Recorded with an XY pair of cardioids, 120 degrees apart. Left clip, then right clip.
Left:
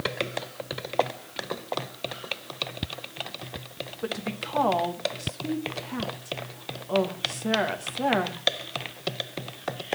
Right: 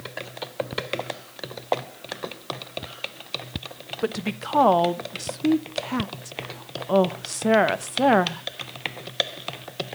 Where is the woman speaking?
45° right, 0.9 m.